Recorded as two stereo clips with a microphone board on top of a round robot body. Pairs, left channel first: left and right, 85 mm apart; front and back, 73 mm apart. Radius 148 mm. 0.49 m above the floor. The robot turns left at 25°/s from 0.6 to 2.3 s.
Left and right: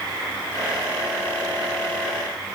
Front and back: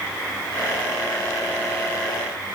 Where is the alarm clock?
No alarm clock in this recording.